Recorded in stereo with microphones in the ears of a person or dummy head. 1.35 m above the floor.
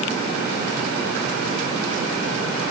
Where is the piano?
I don't hear a piano.